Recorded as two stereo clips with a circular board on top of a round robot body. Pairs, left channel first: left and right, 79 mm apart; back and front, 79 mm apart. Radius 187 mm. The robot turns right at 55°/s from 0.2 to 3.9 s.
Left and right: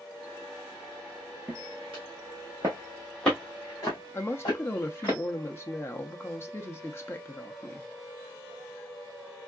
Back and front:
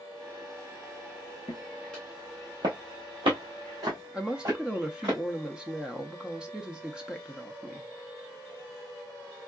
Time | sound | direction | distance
1.5 | footsteps | 160° right | 0.5 m
4.1 | a woman speaking | 70° left | 0.7 m